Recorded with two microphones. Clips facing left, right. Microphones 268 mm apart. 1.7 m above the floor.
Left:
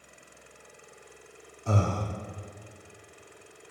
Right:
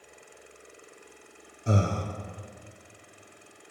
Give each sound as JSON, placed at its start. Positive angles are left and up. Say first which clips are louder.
{"t": 1.7, "sound": "breathing", "louder": "right 1 dB", "side_deg": -20, "distance_m": 0.5}